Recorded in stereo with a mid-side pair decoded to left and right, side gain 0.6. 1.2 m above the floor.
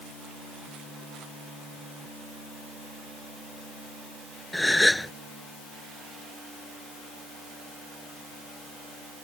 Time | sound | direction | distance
4.5 | a gasp | 5° left | ?